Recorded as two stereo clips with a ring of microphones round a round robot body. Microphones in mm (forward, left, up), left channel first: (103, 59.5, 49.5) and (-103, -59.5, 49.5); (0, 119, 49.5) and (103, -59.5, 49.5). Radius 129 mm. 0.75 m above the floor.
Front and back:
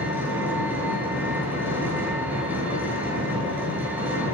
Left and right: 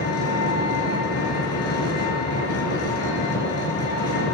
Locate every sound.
0.0 s an engine running: 125° left, 6.5 m